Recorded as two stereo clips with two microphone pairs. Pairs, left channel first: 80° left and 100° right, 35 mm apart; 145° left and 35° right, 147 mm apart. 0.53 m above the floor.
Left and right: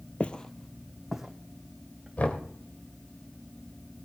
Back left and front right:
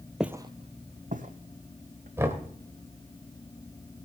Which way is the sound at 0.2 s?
45° left.